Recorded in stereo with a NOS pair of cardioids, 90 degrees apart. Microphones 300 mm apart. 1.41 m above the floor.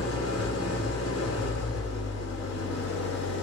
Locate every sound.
0.0 s an engine running: 55° left, 2.5 m